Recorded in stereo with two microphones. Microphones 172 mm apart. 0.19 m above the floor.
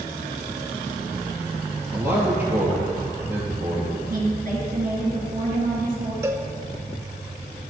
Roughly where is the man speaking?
Centre.